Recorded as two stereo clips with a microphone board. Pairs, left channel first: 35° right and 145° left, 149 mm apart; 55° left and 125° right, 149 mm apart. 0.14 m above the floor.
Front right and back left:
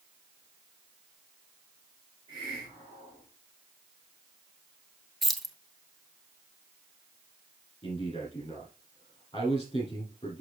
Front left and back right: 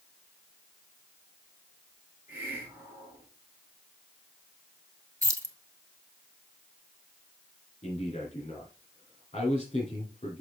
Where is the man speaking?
20° left, 3.5 m.